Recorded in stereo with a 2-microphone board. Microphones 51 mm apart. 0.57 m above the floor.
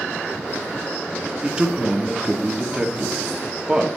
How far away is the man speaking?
About 0.9 m.